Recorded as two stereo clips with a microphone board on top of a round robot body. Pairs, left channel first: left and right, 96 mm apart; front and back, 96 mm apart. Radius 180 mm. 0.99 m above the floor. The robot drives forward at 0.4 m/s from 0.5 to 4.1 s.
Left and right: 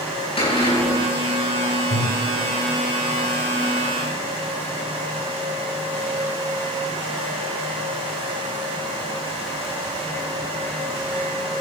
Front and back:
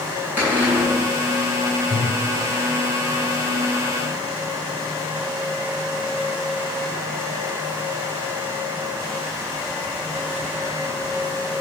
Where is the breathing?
80° left, 2.0 m; by 2.2 s 85° left, 2.0 m.